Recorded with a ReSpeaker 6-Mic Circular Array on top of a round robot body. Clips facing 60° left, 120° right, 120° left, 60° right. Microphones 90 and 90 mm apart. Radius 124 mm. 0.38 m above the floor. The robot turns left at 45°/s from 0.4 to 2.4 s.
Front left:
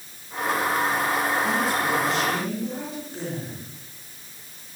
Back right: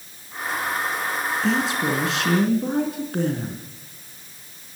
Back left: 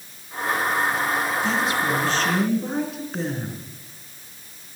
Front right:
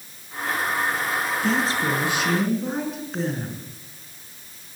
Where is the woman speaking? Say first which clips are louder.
Back right 1 dB, even; 105° right, 5 m; by 3.6 s 150° right, 5 m.